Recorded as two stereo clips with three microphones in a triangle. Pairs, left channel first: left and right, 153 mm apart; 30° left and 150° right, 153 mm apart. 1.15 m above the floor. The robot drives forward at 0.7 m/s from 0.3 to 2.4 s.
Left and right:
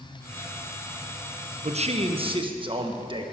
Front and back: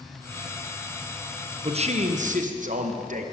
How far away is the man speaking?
About 0.9 m.